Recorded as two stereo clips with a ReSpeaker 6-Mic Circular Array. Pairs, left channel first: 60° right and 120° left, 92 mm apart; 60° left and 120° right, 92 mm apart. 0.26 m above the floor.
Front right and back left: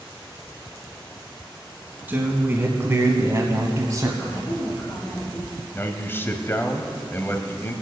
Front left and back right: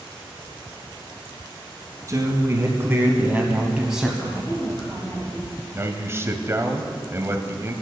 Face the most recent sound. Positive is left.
turn(degrees=-95)